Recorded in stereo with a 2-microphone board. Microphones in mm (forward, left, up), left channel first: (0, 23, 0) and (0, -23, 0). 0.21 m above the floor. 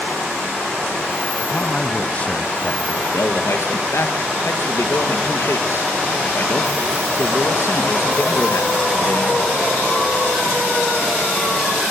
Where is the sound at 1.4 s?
30° left (ahead or behind), 1.1 m.